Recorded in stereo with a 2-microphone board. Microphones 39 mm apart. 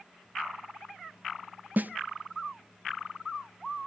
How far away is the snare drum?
About 0.5 m.